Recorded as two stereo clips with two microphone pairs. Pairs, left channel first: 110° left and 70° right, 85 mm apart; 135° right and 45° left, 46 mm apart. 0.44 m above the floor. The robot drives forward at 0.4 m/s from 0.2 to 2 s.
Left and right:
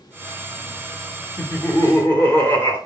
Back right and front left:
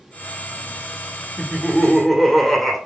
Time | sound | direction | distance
1.4 | laughter | 135° left | 1.4 m